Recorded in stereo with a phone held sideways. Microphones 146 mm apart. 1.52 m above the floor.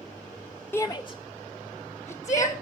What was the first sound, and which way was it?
A shout, 15° left (ahead or behind).